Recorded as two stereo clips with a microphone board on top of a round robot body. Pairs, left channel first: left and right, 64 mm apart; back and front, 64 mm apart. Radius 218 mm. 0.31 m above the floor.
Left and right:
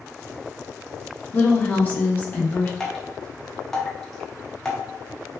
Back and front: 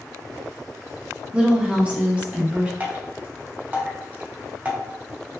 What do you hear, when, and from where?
1.3 s a woman speaking: 50° left, 0.9 m
2.8 s dripping: 20° left, 1.0 m